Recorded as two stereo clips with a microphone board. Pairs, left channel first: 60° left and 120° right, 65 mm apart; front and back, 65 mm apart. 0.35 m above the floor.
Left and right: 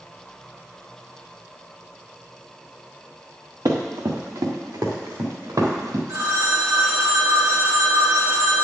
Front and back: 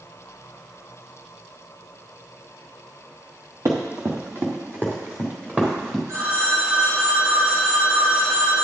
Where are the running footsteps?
140° right, 1.6 m; by 6.0 s 110° right, 3 m.